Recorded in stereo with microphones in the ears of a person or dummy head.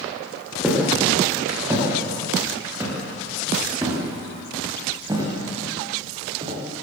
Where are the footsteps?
10° right (ahead or behind), 8.5 m; by 6.6 s 30° right (ahead or behind), 7 m.